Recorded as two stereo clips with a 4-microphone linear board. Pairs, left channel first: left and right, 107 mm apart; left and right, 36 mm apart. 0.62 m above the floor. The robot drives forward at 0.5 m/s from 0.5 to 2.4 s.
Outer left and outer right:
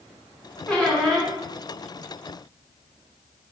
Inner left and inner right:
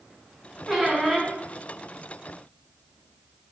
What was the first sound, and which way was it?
A squeak, 5° left (ahead or behind).